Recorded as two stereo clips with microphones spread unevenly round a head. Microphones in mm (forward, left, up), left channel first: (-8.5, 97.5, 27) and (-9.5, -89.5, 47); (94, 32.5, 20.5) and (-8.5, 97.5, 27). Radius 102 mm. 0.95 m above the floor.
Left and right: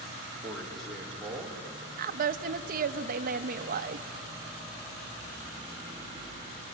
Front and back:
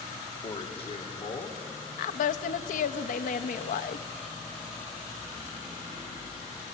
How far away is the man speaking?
About 2 m.